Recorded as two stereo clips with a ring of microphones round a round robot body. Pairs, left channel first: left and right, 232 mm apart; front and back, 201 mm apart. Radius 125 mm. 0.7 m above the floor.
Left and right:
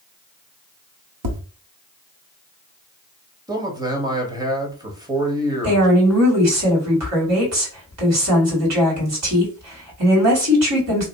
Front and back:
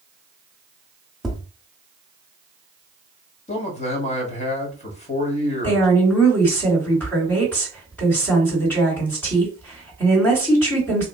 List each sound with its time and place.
1.2 s tapping: 90° right, 1.0 m
3.5 s a man speaking: 25° right, 1.3 m
5.6 s a woman speaking: 85° right, 2.5 m